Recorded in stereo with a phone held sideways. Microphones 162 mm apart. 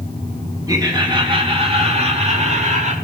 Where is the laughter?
20° right (ahead or behind), 2.5 m; by 2.9 s 45° right (ahead or behind), 3.5 m.